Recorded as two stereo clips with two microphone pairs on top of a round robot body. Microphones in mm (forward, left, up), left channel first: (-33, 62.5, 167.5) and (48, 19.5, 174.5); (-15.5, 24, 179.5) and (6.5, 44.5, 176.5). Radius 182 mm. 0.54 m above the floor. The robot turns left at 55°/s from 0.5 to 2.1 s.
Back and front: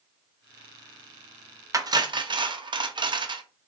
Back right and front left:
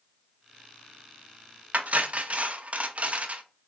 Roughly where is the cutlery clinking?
Ahead left.